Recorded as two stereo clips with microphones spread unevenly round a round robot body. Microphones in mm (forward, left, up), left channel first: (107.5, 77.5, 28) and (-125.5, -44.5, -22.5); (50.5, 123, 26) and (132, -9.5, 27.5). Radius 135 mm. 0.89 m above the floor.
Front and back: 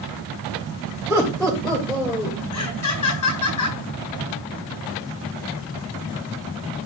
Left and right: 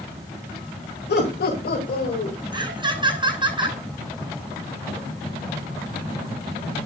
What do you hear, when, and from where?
1.1 s laughter: 115° left, 3.5 m; by 2.4 s 110° left, 3 m
2.5 s laughter: straight ahead, 8 m